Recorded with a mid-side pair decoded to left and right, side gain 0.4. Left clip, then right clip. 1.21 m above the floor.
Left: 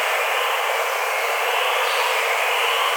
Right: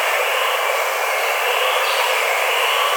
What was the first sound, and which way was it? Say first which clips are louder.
Running water: right 2 dB; 55° right.